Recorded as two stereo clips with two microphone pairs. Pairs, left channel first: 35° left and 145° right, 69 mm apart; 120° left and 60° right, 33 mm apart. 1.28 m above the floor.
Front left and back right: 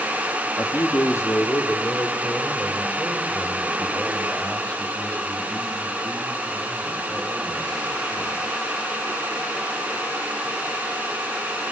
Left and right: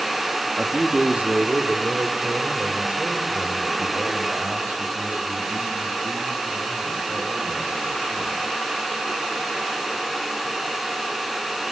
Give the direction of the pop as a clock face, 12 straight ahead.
I don't hear a pop.